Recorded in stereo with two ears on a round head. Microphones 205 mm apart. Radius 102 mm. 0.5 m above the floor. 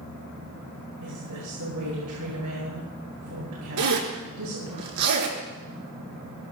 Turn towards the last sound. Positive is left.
turn(degrees=-85)